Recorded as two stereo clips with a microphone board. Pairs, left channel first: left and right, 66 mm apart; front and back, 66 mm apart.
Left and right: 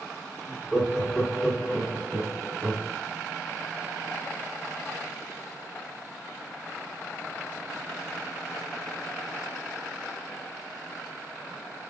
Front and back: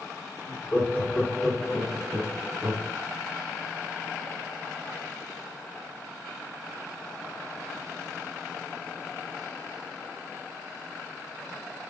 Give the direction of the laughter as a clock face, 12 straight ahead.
1 o'clock.